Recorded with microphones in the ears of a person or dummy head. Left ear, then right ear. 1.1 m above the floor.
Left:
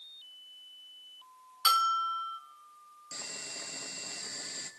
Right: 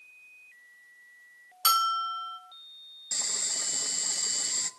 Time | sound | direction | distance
1.6 | a bell | centre (ahead or behind) | 0.6 m
3.1 | boiling | 20° right (ahead or behind) | 1.0 m